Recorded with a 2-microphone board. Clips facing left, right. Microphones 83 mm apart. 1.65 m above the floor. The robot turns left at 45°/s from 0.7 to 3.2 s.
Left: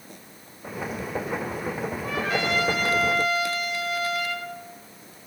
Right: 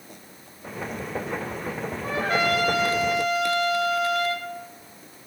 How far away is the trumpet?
About 2.5 m.